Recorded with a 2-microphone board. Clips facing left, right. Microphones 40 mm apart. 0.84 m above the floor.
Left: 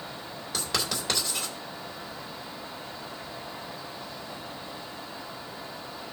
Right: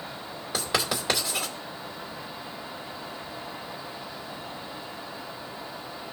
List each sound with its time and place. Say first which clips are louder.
0.5 s writing: right 3 dB; 15° right (ahead or behind), 2.5 m